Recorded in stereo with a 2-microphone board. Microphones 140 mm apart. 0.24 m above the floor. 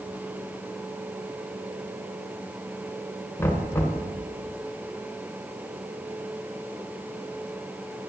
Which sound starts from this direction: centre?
Knocking, at 3.4 s.